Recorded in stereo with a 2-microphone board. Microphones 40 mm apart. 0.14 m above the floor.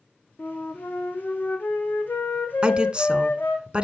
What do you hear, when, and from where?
0.4 s a flute: 55° left (ahead or behind), 1.8 m
2.6 s a woman speaking: 25° right (ahead or behind), 1.2 m